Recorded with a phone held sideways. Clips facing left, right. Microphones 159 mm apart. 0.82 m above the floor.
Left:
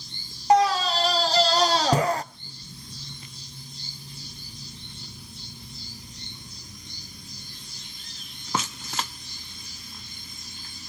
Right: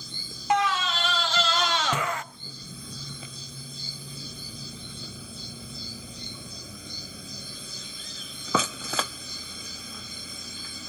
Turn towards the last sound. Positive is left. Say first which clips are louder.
# left 6 dB
turn(degrees=35)  # may be behind; listen again after turning